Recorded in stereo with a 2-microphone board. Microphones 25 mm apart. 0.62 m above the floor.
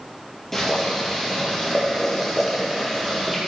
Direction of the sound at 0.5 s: 15° left (ahead or behind).